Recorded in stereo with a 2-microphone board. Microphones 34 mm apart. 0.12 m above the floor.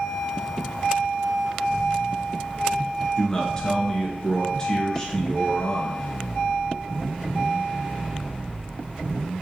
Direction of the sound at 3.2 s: 20° left (ahead or behind).